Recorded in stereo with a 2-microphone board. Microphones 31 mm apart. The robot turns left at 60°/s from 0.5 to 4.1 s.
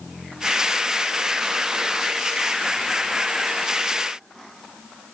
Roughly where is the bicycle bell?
No bicycle bell in this recording.